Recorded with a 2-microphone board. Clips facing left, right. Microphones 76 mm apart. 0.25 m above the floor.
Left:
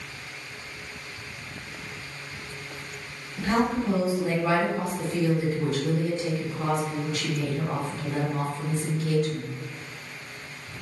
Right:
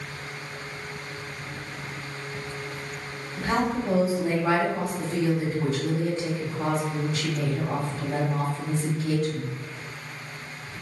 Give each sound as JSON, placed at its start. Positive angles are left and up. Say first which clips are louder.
{"t": 3.4, "sound": "a woman speaking", "louder": "left 1 dB", "side_deg": -40, "distance_m": 1.8}